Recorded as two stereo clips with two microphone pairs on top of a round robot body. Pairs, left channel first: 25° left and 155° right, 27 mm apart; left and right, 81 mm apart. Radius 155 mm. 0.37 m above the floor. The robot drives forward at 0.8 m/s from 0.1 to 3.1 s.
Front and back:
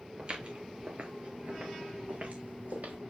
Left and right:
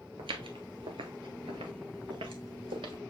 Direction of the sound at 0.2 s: 85° right.